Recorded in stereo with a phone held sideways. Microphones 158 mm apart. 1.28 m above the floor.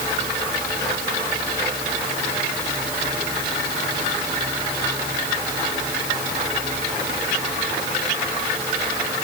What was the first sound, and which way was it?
Only background noise.